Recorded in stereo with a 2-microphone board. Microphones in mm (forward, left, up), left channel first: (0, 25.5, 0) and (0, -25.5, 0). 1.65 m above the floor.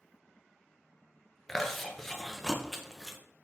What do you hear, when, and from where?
1.5 s chewing: 5° left (ahead or behind), 0.5 m